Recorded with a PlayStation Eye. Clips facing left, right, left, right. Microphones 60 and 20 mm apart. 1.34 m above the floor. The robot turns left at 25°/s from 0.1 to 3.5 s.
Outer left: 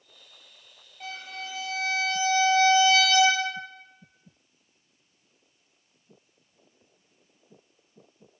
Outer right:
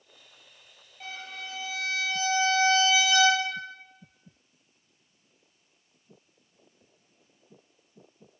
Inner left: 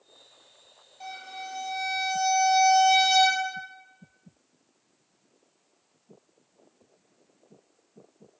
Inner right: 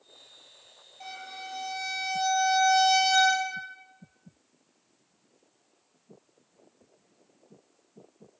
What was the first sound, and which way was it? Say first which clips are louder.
A violin: outer left 2 dB, inner left 2 dB; 175° left.